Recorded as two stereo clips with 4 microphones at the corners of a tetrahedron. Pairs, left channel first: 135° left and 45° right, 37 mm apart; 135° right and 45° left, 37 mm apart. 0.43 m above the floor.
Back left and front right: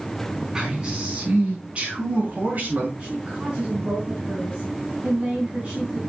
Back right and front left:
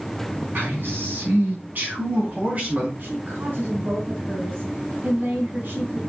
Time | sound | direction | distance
0.6 | a man speaking | 25° left | 4.5 m
3.0 | a woman speaking | 15° left | 3 m